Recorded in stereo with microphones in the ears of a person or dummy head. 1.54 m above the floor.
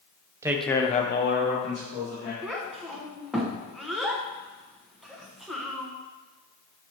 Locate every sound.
0.4 s a man speaking: 15° right (ahead or behind), 0.8 m; by 2.3 s 85° left, 2 m
2.4 s a child speaking: centre (ahead or behind), 0.8 m